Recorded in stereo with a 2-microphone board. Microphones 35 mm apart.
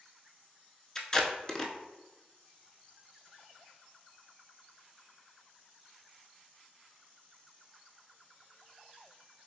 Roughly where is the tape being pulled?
Centre.